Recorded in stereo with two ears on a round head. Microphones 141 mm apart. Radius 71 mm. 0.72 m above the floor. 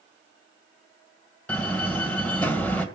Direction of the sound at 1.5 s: 10° left (ahead or behind).